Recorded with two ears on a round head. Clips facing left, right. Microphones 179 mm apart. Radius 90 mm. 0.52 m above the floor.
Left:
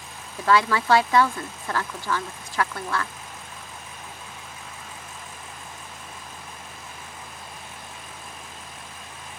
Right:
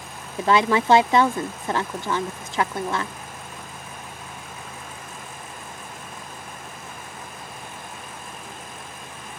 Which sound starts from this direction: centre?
A woman speaking, at 0.4 s.